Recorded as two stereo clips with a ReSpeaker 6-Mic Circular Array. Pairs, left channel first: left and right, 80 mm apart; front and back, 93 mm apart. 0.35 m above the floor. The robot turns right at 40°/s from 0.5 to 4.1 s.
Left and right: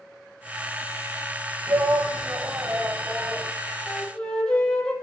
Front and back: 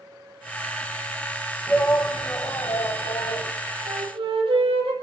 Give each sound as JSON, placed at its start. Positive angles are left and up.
{"t": 1.7, "sound": "a shout", "azimuth_deg": -70, "distance_m": 2.0}
{"t": 3.9, "sound": "a flute", "azimuth_deg": 160, "distance_m": 3.0}